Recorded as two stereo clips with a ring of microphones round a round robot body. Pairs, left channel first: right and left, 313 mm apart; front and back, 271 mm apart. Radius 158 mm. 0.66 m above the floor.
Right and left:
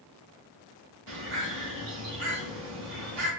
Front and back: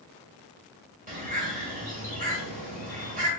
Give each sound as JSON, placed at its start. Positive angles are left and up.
{"t": 1.1, "sound": "a bird", "azimuth_deg": 120, "distance_m": 1.5}